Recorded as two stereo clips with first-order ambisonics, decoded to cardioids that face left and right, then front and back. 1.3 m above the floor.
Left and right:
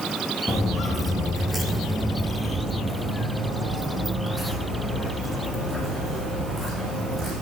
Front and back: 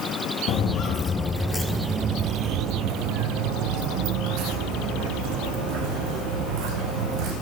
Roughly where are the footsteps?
Ahead.